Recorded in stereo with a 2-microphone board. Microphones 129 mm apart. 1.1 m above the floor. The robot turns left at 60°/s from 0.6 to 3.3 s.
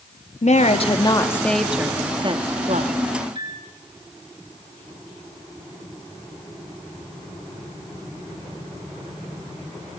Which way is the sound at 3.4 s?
35° right (ahead or behind).